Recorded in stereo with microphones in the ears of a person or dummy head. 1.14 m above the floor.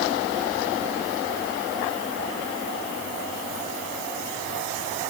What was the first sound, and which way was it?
Only background noise.